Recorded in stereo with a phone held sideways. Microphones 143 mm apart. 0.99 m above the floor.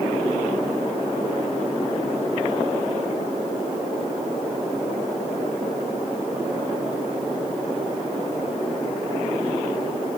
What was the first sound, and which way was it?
Only background noise.